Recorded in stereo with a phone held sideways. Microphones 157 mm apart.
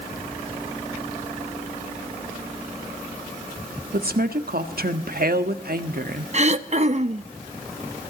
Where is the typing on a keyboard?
I don't hear typing on a keyboard.